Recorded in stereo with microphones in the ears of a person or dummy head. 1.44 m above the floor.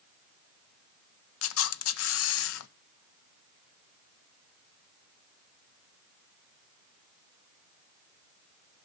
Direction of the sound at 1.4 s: 70° left (ahead or behind).